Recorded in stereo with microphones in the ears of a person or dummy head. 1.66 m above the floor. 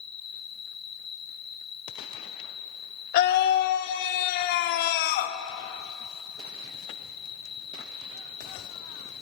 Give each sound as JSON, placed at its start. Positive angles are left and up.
{"t": 0.0, "sound": "an insect", "side_deg": 5, "distance_m": 1.1}
{"t": 3.1, "sound": "a scream", "side_deg": 50, "distance_m": 1.2}